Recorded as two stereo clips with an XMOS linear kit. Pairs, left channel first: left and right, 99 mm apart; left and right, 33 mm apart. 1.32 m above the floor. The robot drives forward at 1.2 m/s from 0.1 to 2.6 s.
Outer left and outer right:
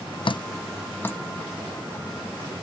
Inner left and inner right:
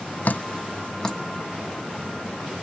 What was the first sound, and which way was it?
Dripping, 60° left (ahead or behind).